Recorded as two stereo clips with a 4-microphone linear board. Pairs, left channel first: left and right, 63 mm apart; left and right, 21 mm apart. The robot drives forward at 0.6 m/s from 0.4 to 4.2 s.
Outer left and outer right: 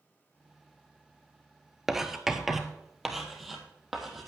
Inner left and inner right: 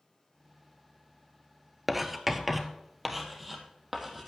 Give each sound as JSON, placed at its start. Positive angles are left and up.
{"t": 1.9, "sound": "writing", "side_deg": -5, "distance_m": 0.9}